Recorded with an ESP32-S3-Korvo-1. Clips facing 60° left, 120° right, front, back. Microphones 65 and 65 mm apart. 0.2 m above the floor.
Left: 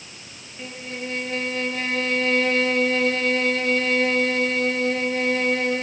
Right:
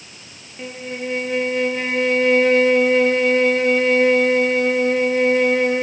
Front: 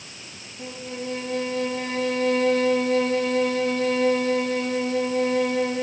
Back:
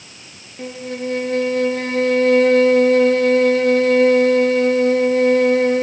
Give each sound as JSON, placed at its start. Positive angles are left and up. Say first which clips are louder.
{"t": 0.6, "sound": "a violin", "louder": "right 5 dB, back 7 dB", "azimuth_deg": 170, "distance_m": 1.6}